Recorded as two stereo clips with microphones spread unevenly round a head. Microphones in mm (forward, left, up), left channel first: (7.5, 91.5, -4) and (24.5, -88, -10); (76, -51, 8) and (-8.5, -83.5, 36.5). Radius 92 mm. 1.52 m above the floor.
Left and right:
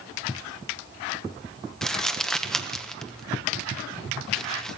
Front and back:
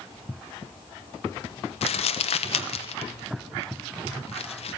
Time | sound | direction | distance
1.8 | crumpling | 10° left | 1.0 m